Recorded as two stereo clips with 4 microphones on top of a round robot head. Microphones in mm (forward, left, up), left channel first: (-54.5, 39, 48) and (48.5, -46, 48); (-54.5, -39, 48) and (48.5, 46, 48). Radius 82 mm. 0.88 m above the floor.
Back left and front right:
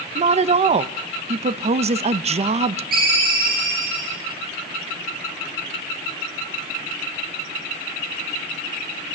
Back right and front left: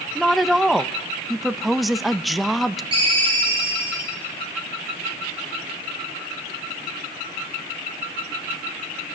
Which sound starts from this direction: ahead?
A ringtone, at 2.9 s.